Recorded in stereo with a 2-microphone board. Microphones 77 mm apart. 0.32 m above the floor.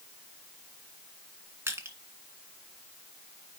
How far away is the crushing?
About 1.9 m.